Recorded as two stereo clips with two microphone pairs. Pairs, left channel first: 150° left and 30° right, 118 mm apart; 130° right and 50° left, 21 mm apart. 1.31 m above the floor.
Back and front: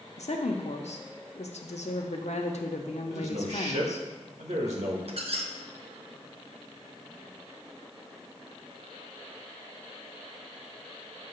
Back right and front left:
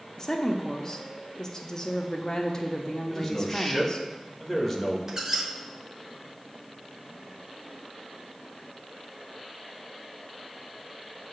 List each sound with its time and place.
0.2 s a woman speaking: 165° left, 0.8 m
3.1 s a man speaking: 50° right, 1.5 m
5.1 s a squeak: 20° right, 0.8 m